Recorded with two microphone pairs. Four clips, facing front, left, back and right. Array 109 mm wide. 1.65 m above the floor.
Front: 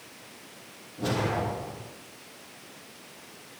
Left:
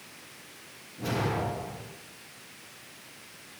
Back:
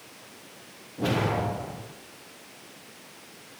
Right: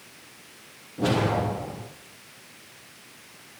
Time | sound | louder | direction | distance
1.0 | a whoosh | right 6 dB, back 2 dB | 110° right | 9.5 m